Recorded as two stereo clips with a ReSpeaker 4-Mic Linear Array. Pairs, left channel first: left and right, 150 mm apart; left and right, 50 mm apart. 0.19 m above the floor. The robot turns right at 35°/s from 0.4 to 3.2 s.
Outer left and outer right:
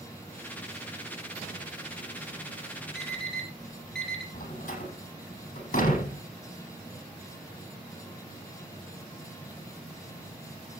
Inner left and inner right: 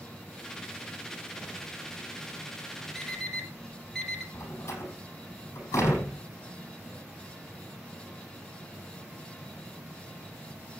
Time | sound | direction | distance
3.0 | an alarm clock | 5° right (ahead or behind) | 3 m
4.3 | a door slam | 65° left (ahead or behind) | 5 m